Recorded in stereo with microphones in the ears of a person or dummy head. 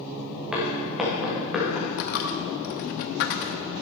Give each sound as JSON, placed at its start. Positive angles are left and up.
{"t": 0.5, "sound": "footsteps", "side_deg": -5, "distance_m": 6.0}
{"t": 2.0, "sound": "a dropped coin", "side_deg": 50, "distance_m": 0.8}